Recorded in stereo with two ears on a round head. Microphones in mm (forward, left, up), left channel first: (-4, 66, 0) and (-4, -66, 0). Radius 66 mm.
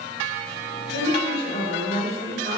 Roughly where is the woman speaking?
Right.